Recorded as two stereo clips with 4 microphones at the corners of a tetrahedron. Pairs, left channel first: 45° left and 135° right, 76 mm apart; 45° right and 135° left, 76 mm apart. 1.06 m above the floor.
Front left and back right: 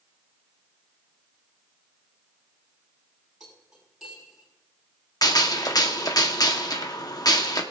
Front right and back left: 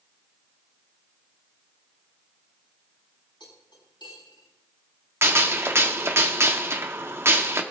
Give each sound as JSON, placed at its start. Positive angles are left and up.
{"t": 3.4, "sound": "cutlery clinking", "azimuth_deg": -45, "distance_m": 5.5}
{"t": 5.2, "sound": "a gunshot", "azimuth_deg": 80, "distance_m": 1.3}